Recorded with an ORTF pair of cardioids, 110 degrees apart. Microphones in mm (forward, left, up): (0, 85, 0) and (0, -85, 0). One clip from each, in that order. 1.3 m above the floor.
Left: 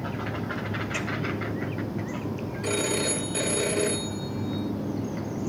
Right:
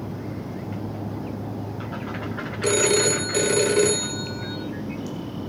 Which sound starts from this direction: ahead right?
A phone ringing, at 2.6 s.